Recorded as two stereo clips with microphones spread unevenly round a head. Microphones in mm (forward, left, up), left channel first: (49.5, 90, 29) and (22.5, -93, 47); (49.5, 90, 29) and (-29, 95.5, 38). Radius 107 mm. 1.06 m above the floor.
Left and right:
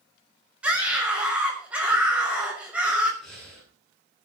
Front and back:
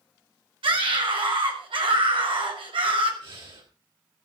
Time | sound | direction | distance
0.6 | a scream | 175° left | 6 m
3.2 | breathing | 170° left | 9.5 m